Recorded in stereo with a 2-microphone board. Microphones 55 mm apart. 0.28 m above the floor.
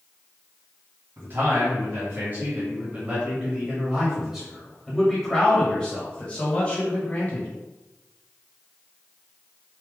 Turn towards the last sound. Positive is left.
turn(degrees=30)  # may be behind; listen again after turning